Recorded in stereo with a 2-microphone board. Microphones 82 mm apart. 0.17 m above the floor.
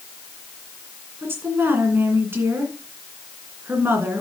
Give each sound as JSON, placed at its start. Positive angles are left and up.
{"t": 1.2, "sound": "a woman speaking", "side_deg": -30, "distance_m": 2.0}